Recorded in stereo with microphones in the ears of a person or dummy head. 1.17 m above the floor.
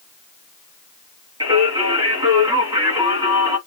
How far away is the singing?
About 1.4 m.